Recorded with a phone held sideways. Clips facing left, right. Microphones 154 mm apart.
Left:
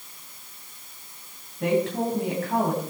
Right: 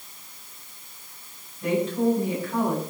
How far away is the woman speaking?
About 8 m.